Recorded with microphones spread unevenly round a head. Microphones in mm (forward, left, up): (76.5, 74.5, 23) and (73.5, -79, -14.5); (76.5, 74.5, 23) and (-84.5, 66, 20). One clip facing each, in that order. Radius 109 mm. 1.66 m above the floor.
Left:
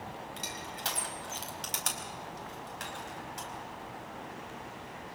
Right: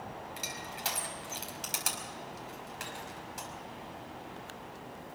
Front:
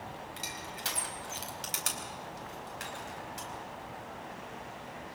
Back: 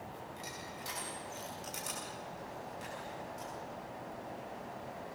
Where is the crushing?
5° right, 4.5 m.